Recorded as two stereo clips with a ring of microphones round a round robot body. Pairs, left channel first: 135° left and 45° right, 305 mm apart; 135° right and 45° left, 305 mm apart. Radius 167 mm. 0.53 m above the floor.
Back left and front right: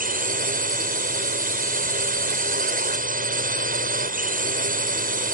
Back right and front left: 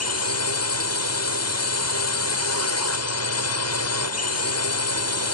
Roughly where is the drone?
Right.